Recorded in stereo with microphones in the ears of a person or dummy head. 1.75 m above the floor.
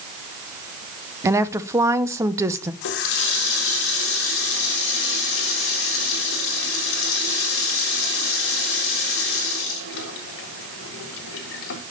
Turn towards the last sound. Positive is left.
turn(degrees=65)  # may be behind; listen again after turning